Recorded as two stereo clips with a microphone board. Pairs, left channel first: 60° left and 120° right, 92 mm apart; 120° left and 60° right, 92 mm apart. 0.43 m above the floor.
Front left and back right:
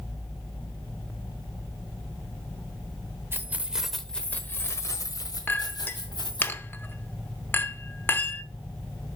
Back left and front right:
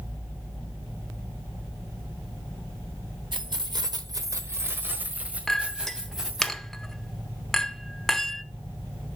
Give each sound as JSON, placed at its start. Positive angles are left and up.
{"t": 3.3, "sound": "keys jangling", "azimuth_deg": -65, "distance_m": 1.0}
{"t": 5.5, "sound": "a clink", "azimuth_deg": 40, "distance_m": 0.6}